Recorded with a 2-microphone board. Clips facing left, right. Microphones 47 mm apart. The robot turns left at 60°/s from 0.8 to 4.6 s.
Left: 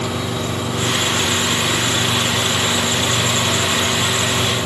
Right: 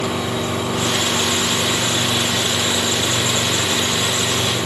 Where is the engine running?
105° right, 6 m; by 4.7 s 25° left, 6 m.